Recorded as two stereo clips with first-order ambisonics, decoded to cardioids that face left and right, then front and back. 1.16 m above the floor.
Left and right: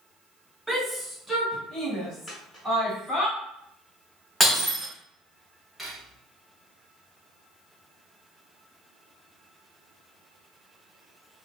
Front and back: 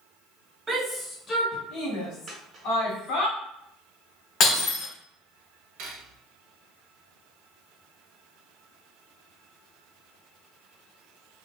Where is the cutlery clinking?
Straight behind, 0.7 m.